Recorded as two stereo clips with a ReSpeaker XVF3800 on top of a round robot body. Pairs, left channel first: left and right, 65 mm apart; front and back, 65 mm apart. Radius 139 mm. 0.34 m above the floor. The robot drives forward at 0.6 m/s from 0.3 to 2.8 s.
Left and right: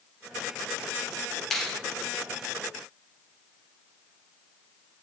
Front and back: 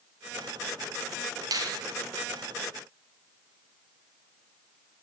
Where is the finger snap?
175° left, 3 m.